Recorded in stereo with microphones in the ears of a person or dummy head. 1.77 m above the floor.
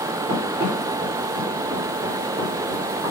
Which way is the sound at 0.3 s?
10° right (ahead or behind).